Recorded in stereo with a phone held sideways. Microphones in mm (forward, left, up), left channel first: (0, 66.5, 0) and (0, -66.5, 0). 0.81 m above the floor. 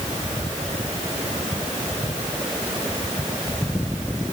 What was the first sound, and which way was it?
Only background noise.